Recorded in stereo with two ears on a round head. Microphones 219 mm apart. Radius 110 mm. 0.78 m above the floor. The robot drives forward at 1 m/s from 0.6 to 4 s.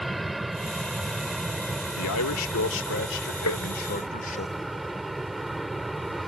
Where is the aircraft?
Centre (ahead or behind).